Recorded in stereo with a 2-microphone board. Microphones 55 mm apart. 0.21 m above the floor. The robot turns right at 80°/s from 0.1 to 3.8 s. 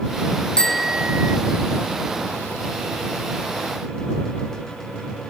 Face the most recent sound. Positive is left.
turn(degrees=60)